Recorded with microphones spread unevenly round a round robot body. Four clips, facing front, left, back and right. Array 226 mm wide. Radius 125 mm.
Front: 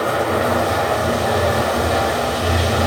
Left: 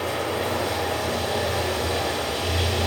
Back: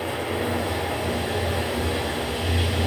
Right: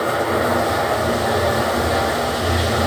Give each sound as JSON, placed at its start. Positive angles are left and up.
{"t": 0.0, "sound": "running water", "azimuth_deg": -25, "distance_m": 1.1}